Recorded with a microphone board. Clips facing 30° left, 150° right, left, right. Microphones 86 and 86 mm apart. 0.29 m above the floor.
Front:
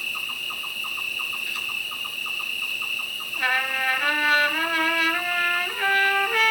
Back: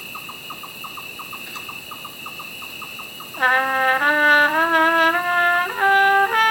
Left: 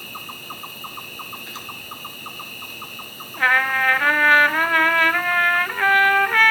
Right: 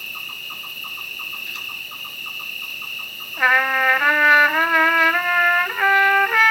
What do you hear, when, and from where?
0.0 s an insect: 145° left, 1.0 m
3.4 s a trumpet: 170° right, 0.6 m